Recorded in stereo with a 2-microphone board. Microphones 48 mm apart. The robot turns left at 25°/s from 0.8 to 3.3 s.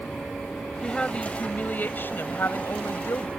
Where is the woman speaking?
165° left; by 3.3 s 100° left.